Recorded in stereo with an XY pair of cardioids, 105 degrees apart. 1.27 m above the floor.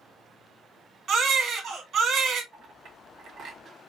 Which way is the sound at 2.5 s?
70° right.